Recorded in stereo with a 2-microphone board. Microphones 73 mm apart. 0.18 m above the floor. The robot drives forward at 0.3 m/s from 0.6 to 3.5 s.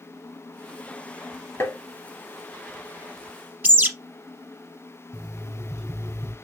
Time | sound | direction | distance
1.6 | tapping | 40° left (ahead or behind) | 0.7 m
3.6 | a bird | 20° right (ahead or behind) | 0.9 m
5.1 | an alarm clock | 10° left (ahead or behind) | 2 m